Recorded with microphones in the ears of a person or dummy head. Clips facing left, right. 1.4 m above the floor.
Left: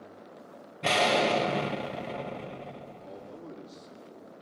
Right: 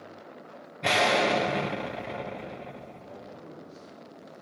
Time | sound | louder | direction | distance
0.8 | an explosion | right 1 dB | 5° left (ahead or behind) | 0.6 m
3.0 | a man speaking | left 1 dB | 75° left (ahead or behind) | 6 m